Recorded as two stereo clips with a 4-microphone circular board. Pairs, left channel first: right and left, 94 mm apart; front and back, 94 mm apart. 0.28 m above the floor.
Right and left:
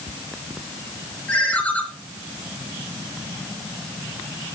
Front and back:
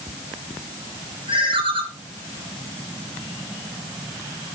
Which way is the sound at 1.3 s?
165° right.